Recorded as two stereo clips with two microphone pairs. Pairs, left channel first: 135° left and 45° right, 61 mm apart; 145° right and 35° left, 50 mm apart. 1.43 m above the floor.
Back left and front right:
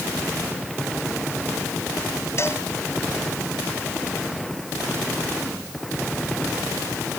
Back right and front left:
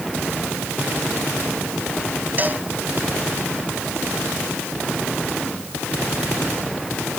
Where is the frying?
No frying in this recording.